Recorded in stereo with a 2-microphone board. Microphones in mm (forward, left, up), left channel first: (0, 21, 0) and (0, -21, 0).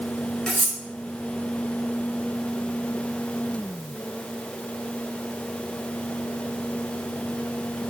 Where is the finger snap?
I don't hear a finger snap.